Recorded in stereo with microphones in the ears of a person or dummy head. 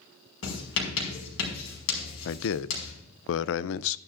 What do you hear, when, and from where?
0.4 s writing: 85° left, 5.5 m
2.2 s a man speaking: 80° left, 0.5 m